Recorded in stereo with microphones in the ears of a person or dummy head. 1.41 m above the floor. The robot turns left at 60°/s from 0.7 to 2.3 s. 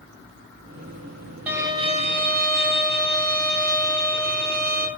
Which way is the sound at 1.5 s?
Straight ahead.